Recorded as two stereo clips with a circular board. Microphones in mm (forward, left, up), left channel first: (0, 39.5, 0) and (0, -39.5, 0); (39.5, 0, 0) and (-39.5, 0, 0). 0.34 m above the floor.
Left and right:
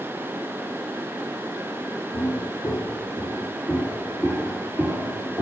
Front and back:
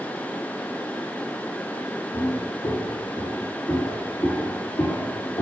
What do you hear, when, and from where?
2.1 s footsteps: 40° left, 1.4 m; by 5.4 s 25° right, 2 m